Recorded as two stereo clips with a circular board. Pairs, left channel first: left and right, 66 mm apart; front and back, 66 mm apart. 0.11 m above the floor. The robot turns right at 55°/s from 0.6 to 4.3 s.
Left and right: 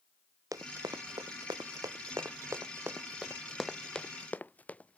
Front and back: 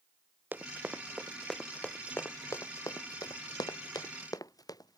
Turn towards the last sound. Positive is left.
turn(degrees=20)